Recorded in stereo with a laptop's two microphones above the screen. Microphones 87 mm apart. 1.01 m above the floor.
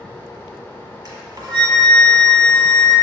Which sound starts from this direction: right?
A flute, at 1.1 s.